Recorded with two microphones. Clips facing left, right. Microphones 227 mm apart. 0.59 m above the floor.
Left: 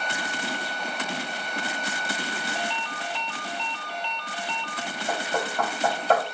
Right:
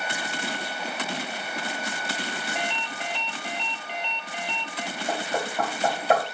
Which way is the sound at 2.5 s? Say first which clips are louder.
Even; 20° right (ahead or behind).